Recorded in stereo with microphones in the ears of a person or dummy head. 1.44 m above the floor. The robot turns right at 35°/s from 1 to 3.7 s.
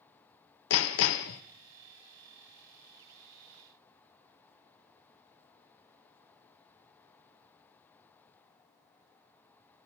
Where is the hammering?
65° left (ahead or behind), 0.5 m; by 1.4 s 50° left (ahead or behind), 0.5 m.